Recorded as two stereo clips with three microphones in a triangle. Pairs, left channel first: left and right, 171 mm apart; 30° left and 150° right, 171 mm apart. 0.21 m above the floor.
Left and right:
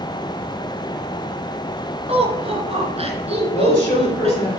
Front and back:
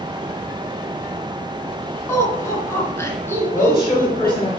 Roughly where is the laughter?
Ahead right.